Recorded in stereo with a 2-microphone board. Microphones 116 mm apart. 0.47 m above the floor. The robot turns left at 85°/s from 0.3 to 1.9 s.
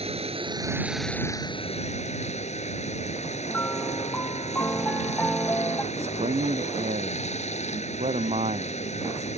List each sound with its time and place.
0.0 s running water: 120° right; by 9.4 s 105° left
3.5 s a piano: 15° left (ahead or behind)
5.9 s a man speaking: 70° right (ahead or behind)